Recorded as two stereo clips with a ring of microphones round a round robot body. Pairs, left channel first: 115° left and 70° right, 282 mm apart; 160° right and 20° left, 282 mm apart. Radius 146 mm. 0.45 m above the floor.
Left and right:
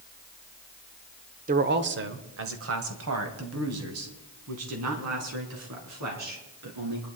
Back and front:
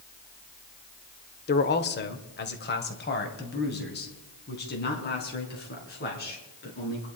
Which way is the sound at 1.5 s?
115° right.